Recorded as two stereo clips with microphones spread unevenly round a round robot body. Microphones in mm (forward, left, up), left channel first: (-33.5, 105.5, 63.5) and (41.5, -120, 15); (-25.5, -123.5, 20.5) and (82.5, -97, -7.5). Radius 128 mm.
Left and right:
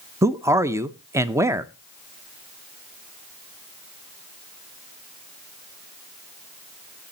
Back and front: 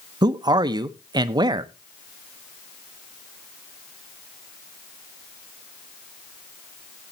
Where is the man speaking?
5° right, 0.5 m.